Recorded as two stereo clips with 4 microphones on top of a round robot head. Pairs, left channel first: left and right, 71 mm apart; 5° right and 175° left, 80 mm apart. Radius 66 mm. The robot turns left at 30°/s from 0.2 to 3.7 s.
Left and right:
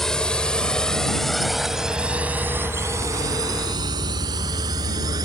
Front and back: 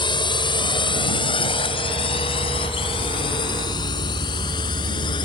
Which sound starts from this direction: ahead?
A drone, at 0.0 s.